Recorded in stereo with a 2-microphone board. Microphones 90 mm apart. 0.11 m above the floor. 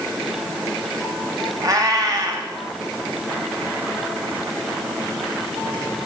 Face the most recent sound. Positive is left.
turn(degrees=-40)  # may be behind; listen again after turning